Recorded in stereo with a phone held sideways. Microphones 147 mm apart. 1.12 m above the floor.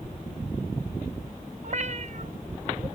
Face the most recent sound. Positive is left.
turn(degrees=-50)  # may be behind; listen again after turning